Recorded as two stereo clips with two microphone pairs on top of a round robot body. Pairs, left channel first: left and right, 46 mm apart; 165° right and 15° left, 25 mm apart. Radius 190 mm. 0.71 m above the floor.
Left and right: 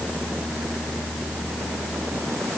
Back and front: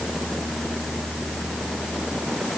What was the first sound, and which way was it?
Only background noise.